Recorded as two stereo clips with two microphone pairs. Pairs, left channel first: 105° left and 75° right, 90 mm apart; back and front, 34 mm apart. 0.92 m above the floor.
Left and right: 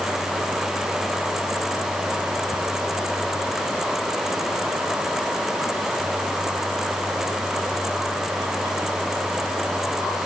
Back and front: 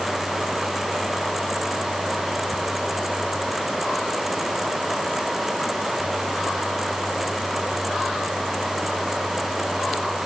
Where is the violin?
No violin in this recording.